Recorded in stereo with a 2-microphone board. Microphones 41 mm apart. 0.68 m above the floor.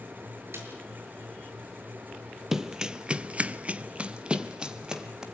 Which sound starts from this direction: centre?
Running footsteps, at 2.5 s.